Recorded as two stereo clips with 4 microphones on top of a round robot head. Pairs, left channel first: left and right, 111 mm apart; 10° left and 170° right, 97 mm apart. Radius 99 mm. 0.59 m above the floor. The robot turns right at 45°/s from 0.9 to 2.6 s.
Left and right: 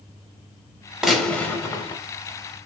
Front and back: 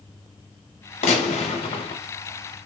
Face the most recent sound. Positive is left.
turn(degrees=65)